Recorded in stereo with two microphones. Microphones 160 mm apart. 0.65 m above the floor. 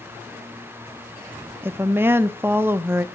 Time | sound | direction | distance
1.6 | a woman speaking | 15° right (ahead or behind) | 0.7 m